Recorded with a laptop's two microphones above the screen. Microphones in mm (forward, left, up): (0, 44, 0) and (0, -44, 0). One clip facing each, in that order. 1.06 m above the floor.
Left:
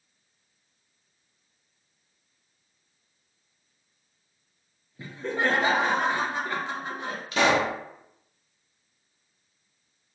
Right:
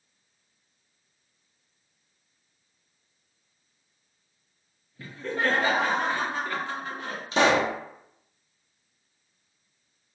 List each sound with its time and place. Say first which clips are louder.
5.0 s laughter: left 1 dB; 20° left (ahead or behind), 0.8 m
7.3 s a pop: right 1 dB; 30° right (ahead or behind), 0.8 m